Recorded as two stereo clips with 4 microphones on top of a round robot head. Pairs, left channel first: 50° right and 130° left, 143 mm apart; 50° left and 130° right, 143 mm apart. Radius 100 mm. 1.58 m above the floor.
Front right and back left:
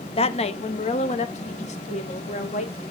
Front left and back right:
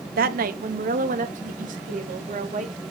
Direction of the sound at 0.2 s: 100° right.